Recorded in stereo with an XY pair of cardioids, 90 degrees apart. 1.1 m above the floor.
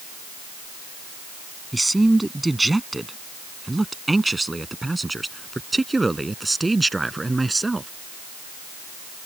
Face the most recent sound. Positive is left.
turn(degrees=-20)